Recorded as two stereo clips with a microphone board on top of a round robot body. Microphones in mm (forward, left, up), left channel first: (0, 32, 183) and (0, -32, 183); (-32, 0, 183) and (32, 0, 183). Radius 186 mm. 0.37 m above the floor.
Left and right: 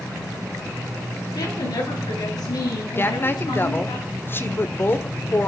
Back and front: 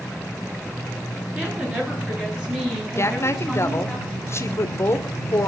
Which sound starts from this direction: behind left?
A woman speaking, at 3.0 s.